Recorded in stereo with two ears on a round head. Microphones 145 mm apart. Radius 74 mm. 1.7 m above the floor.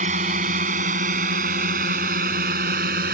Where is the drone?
45° right (ahead or behind); by 3.1 s 60° right (ahead or behind).